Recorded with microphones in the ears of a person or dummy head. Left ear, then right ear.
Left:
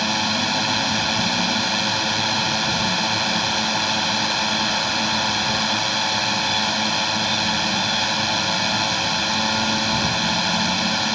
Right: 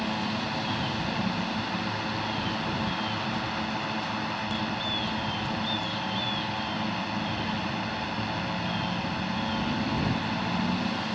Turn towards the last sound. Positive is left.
turn(degrees=80)